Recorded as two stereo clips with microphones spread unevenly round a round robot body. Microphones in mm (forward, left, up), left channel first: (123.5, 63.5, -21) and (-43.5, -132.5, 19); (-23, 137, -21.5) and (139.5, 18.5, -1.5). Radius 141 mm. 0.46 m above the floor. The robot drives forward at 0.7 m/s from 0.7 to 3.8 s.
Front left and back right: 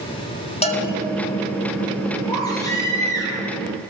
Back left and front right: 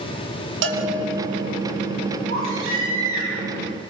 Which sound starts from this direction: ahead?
A bell, at 0.6 s.